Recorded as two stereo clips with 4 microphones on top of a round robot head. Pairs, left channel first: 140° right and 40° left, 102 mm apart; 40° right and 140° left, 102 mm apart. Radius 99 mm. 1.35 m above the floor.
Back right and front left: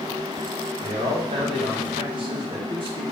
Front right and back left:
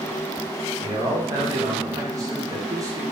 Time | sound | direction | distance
0.8 | a man speaking | 80° left | 2 m